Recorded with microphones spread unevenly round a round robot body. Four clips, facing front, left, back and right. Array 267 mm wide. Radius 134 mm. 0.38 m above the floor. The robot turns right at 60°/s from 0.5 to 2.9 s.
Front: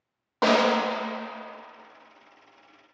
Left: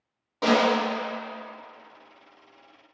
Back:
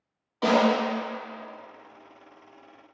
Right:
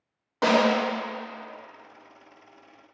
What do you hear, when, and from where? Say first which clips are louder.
0.4 s a snare drum: even, even; 25° right, 0.8 m; by 0.8 s 5° right, 0.8 m